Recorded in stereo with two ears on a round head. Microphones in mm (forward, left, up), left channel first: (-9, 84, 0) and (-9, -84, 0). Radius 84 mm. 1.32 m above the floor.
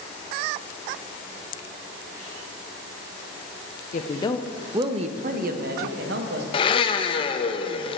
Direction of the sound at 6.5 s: 30° left (ahead or behind).